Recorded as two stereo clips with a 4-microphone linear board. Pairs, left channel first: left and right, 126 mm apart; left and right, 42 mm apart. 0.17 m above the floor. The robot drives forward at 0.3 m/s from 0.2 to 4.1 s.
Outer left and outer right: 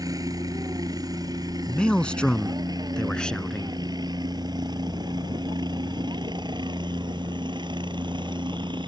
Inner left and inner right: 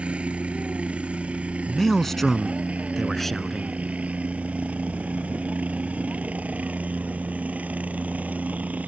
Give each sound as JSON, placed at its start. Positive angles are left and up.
{"t": 0.0, "sound": "a helicopter", "side_deg": -30}
{"t": 1.7, "sound": "a man speaking", "side_deg": 10}